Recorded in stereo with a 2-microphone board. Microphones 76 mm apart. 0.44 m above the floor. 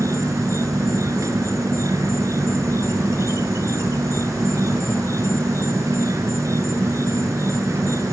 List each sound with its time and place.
0.0 s an insect: 45° right (ahead or behind)